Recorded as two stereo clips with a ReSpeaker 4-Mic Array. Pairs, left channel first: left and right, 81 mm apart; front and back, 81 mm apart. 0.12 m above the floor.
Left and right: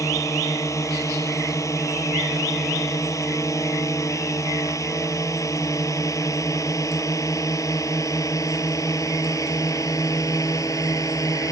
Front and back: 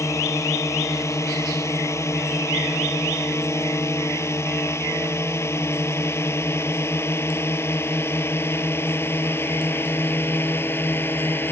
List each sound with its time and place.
0.0 s a drone: 45° left; by 11.5 s 55° left